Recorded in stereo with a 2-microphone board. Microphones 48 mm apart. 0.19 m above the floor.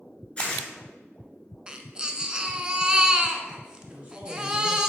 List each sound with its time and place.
0.4 s tearing paper: 25° left (ahead or behind), 2.5 m
1.7 s a baby crying: 15° right (ahead or behind), 0.7 m
3.9 s a man speaking: 20° right (ahead or behind), 1.5 m